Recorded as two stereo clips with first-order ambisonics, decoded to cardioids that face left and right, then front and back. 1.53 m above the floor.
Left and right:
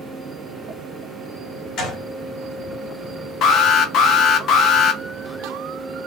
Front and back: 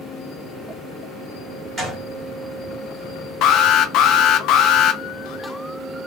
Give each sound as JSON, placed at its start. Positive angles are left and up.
{"t": 1.8, "sound": "a gunshot", "azimuth_deg": 115, "distance_m": 1.5}
{"t": 3.4, "sound": "an alarm", "azimuth_deg": 40, "distance_m": 0.5}